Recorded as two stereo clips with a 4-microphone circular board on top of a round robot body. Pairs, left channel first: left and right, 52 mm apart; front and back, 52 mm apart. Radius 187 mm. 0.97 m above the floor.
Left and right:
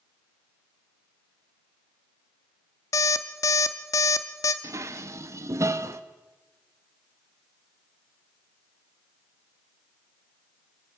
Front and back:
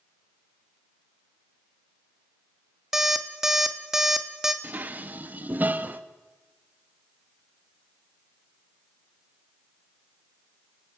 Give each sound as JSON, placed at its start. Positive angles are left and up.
{"t": 2.9, "sound": "an alarm clock", "azimuth_deg": 100, "distance_m": 0.8}
{"t": 4.6, "sound": "dishes clattering", "azimuth_deg": -120, "distance_m": 0.9}